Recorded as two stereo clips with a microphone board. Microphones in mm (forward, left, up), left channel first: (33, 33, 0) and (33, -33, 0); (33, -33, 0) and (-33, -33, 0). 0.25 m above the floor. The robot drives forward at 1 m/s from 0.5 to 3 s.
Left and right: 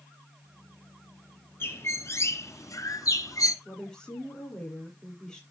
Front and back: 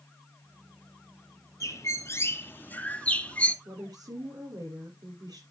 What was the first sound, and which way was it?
A bird, 35° left.